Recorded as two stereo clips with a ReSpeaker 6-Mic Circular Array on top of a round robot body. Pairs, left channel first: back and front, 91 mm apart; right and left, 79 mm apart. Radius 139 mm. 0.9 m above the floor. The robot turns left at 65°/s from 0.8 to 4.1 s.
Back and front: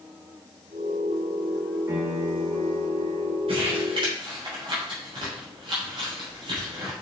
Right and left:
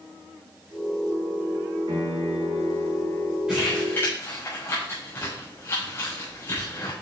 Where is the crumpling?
10° left, 3.5 m; by 6.9 s 30° right, 3.5 m.